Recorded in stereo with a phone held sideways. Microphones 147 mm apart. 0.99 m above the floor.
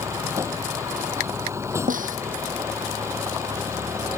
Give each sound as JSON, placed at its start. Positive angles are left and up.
{"t": 0.0, "sound": "a vehicle", "side_deg": -20}
{"t": 1.9, "sound": "a snare drum", "side_deg": -65}